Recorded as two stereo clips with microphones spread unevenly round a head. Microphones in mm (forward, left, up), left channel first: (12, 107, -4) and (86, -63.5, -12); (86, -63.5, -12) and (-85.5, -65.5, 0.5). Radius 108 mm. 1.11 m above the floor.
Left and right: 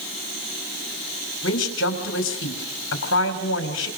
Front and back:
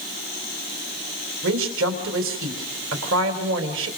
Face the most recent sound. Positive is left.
turn(degrees=155)